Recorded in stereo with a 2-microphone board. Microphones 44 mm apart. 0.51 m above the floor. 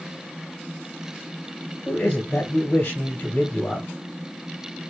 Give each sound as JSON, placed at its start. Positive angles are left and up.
{"t": 1.9, "sound": "a man speaking", "side_deg": 55, "distance_m": 2.5}